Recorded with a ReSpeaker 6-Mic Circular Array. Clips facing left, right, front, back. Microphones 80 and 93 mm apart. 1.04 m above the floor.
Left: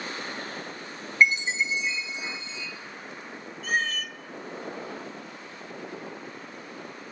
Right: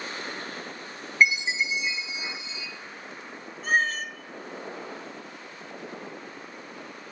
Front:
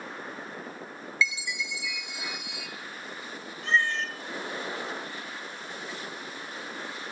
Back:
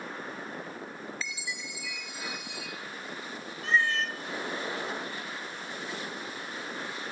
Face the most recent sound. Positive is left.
turn(degrees=-100)